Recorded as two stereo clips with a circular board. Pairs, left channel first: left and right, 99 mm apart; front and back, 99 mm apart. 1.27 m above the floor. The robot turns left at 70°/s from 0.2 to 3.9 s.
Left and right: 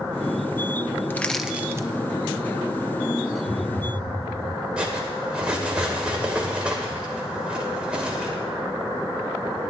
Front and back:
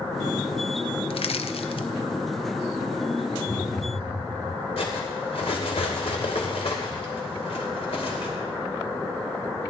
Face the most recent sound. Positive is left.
turn(degrees=-10)